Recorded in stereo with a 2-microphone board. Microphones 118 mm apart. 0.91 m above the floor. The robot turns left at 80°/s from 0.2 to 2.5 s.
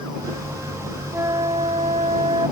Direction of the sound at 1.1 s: 25° right.